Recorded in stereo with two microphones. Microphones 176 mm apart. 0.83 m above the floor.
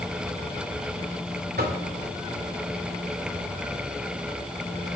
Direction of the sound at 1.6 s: 60° right (ahead or behind).